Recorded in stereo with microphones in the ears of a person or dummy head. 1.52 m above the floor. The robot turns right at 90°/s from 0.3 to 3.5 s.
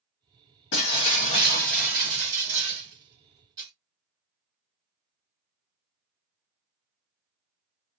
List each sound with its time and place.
0.7 s breaking glass: 85° left, 1.2 m; by 3.7 s 25° right, 1.2 m